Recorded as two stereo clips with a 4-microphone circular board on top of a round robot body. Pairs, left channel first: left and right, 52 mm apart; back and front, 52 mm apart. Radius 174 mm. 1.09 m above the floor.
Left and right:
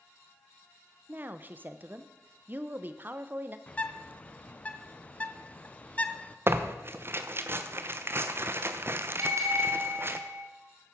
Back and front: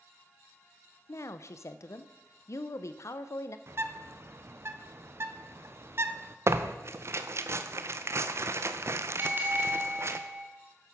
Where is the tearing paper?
40° right, 0.6 m.